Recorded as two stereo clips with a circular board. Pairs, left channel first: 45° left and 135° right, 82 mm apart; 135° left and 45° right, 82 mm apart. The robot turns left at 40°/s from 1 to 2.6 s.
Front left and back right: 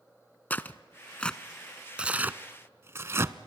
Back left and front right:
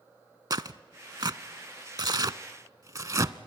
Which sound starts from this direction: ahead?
Tearing paper, at 0.5 s.